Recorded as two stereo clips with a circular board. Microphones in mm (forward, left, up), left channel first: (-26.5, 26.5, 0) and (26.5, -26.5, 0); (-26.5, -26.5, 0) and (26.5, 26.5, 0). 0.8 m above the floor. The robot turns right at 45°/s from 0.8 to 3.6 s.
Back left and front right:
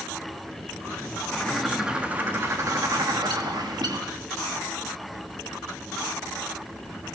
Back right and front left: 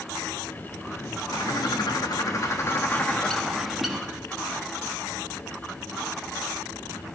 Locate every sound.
1.3 s a bird: 145° right, 1.0 m; by 4.1 s 45° right, 1.0 m